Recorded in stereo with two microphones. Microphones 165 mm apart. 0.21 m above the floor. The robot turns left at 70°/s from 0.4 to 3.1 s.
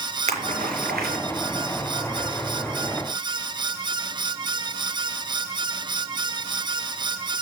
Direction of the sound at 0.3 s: 45° right (ahead or behind).